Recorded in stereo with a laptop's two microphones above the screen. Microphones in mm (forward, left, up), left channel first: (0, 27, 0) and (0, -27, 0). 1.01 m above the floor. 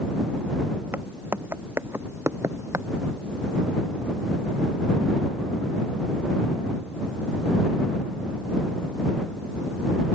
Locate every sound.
0.9 s footsteps: 45° right (ahead or behind); by 2.9 s 65° right (ahead or behind)